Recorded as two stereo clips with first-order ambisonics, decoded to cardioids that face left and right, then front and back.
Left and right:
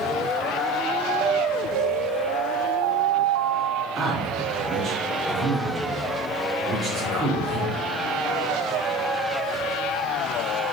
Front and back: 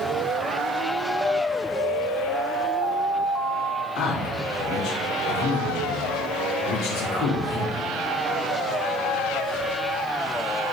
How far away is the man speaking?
About 3.5 m.